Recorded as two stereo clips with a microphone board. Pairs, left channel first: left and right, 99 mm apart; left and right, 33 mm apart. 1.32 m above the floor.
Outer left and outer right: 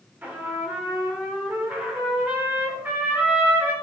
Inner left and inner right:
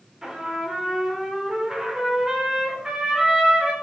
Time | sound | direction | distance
0.2 | a trumpet | 20° right (ahead or behind) | 3 m